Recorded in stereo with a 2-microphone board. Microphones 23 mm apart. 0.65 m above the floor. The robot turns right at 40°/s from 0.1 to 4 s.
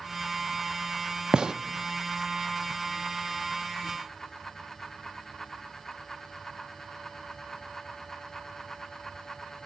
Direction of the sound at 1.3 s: 35° right (ahead or behind).